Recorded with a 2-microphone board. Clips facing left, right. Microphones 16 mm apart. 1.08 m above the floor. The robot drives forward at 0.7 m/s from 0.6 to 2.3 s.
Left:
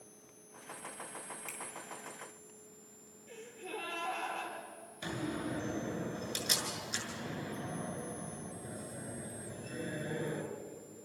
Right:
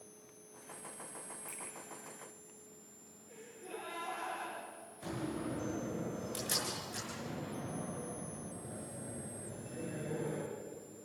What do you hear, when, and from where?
1.5 s a finger snap: 70° left (ahead or behind), 8.5 m
3.3 s a gasp: 70° left (ahead or behind), 9.5 m
5.0 s a door slam: 85° left, 6.5 m